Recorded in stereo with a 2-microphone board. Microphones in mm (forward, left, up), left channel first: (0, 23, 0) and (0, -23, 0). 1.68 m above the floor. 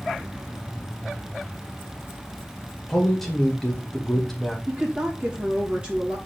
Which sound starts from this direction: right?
A woman speaking, at 4.7 s.